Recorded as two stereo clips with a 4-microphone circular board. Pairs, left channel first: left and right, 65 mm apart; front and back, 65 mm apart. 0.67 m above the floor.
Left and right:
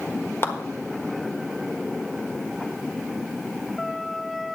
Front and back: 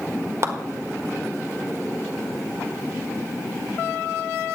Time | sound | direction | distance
0.4 | a clap | 140° left | 1.5 m